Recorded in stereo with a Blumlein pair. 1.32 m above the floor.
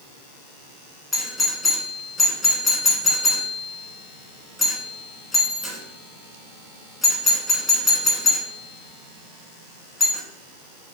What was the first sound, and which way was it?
A doorbell, 20° left.